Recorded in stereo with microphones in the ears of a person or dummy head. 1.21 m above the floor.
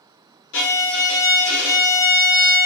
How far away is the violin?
About 1.2 m.